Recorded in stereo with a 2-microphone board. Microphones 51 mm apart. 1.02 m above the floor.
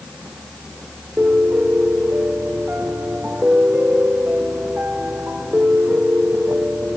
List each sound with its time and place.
1.2 s a piano: 35° right (ahead or behind), 4 m